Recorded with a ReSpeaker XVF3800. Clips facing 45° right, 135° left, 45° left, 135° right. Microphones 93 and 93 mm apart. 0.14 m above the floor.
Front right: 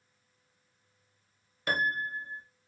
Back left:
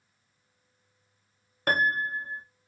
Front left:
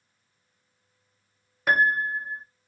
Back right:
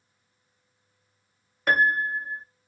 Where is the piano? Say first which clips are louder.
Back left 5 dB, even; 130° left, 0.7 m.